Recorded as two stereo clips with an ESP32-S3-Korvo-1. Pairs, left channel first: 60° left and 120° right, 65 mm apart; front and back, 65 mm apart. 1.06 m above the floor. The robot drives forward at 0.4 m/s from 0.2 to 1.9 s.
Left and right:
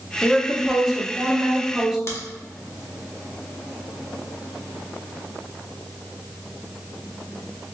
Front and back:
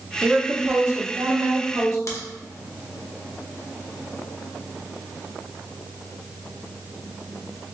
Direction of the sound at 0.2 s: 130° left.